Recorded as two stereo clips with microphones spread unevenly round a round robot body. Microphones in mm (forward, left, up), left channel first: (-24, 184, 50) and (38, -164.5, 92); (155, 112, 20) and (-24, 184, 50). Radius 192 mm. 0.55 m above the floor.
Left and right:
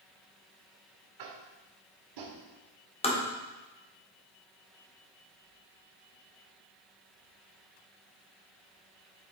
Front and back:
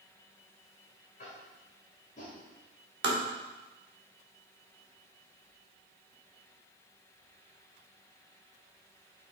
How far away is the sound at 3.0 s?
About 1.3 m.